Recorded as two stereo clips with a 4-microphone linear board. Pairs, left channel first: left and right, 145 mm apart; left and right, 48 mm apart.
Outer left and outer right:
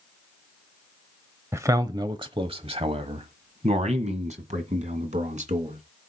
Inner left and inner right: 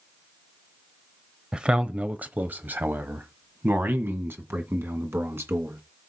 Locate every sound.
1.5 s a man speaking: 20° right (ahead or behind), 0.9 m; by 5.8 s 60° right (ahead or behind), 2.5 m